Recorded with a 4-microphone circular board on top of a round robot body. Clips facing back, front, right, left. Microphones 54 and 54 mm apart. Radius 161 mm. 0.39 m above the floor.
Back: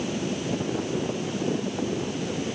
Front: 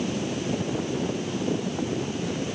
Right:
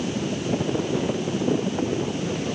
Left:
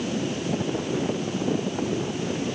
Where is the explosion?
No explosion in this recording.